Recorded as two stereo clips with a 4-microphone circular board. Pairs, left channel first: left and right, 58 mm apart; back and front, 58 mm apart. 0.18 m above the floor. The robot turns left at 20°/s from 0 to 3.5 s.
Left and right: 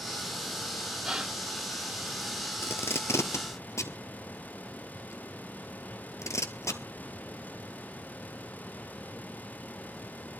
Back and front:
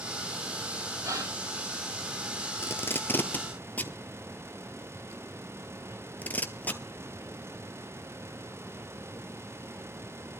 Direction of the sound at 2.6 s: 135° left.